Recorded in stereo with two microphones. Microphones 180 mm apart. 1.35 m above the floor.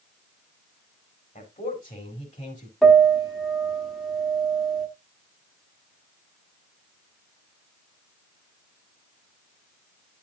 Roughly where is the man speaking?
Left.